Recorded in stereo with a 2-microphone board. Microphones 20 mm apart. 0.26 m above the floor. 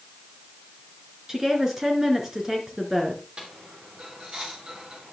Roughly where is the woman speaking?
Right.